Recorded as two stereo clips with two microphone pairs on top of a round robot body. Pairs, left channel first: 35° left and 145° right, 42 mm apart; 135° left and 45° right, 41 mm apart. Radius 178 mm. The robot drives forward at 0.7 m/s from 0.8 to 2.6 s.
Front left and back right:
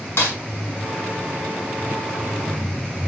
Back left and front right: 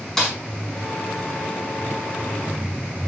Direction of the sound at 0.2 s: 50° left.